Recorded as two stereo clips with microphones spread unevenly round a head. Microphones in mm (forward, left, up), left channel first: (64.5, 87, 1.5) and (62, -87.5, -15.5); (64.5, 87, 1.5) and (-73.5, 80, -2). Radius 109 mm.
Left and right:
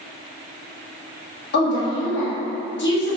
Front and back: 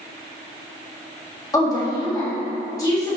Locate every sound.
1.5 s a woman speaking: 70° left, 1.3 m